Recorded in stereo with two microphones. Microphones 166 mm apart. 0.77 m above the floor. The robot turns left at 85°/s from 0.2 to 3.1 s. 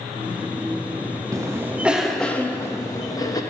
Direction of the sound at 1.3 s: 20° right (ahead or behind).